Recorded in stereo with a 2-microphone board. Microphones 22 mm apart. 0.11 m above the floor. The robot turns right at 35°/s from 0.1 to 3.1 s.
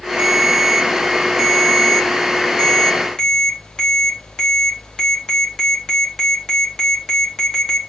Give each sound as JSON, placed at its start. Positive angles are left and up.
{"t": 0.2, "sound": "a ringtone", "azimuth_deg": -70, "distance_m": 3.0}